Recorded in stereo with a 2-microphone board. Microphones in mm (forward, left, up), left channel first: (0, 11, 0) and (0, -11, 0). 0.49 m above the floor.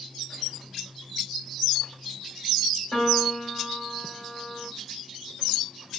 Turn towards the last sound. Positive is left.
turn(degrees=55)  # may be behind; listen again after turning